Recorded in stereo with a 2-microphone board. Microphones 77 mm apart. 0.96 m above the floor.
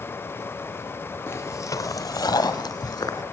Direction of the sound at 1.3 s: 30° left (ahead or behind).